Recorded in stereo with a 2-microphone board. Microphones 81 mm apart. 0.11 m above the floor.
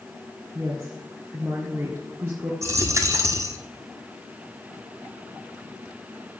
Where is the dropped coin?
40° right (ahead or behind), 1.4 m.